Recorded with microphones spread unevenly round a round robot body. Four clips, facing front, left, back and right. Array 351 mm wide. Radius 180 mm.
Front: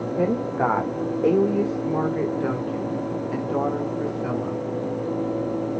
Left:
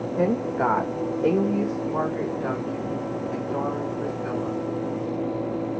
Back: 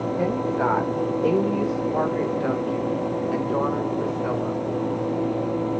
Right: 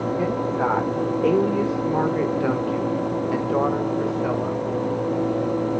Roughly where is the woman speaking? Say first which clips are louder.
Left 4 dB, front 2 dB; ahead left.